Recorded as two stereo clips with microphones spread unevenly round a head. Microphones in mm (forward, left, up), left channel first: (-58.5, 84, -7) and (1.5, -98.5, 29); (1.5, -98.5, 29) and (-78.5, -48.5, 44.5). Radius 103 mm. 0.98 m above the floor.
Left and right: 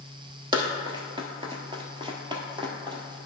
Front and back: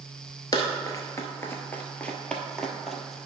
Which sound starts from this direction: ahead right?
Running footsteps, at 0.5 s.